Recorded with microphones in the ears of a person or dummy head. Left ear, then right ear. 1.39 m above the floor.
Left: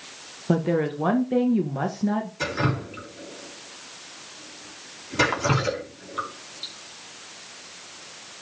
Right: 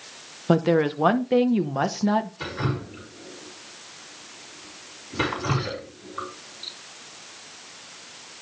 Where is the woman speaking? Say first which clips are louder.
Right 3 dB; 30° right (ahead or behind), 1.1 m.